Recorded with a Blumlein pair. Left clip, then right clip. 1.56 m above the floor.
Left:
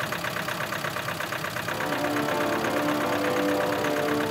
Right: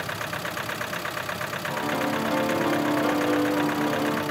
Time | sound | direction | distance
1.7 | a piano | 5° right | 0.8 m